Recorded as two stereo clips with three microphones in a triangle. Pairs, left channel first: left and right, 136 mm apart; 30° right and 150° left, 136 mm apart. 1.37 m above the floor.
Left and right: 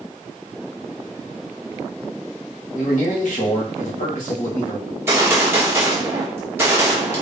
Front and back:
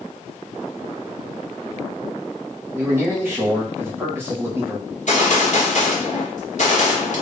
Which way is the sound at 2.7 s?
75° left.